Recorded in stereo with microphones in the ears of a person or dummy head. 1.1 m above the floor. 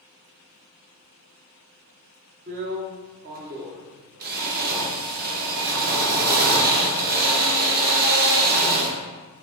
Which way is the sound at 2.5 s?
40° right (ahead or behind).